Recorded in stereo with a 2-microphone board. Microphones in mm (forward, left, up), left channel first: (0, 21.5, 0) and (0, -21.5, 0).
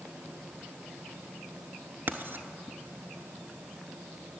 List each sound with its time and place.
2.1 s writing: 60° right (ahead or behind), 0.8 m